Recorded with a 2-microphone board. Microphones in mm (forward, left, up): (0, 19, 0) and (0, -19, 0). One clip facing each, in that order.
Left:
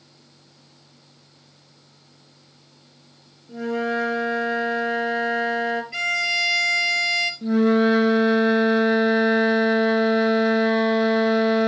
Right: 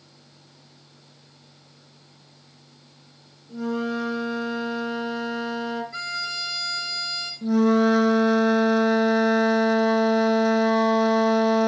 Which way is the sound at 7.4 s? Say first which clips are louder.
Even; 20° left (ahead or behind).